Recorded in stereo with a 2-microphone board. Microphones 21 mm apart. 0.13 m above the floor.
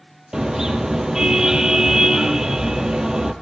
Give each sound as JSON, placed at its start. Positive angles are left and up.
{"t": 0.3, "sound": "a car horn", "side_deg": -30, "distance_m": 2.0}